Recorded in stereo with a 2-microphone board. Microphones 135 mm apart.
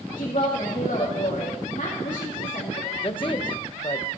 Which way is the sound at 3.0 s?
40° left (ahead or behind).